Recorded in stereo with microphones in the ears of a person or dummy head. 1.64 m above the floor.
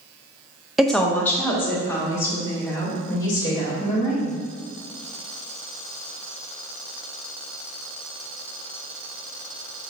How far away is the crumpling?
I don't hear crumpling.